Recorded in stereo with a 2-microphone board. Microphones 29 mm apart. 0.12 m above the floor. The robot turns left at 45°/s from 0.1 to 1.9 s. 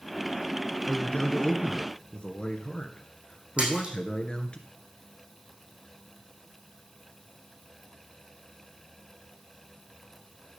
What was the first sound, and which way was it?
A man speaking, 110° left.